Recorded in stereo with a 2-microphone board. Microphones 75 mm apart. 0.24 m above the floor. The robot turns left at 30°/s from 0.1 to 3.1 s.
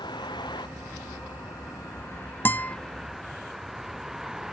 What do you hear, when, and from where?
0.0 s a vehicle: 85° left; by 4.5 s 5° right (ahead or behind)
2.5 s a guitar: 30° left (ahead or behind); by 2.8 s 20° left (ahead or behind)